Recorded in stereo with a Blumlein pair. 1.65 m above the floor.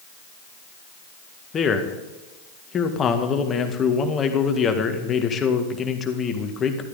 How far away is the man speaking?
About 1.9 m.